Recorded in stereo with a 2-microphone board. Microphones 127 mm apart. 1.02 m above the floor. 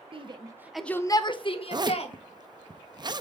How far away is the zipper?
About 0.6 m.